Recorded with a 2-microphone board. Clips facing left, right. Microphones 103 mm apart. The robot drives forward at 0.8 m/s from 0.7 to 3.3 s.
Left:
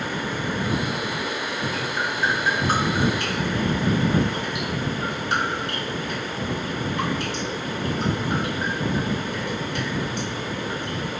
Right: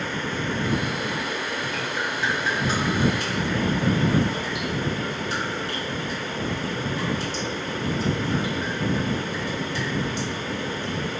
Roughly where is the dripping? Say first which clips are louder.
Left 2 dB; left.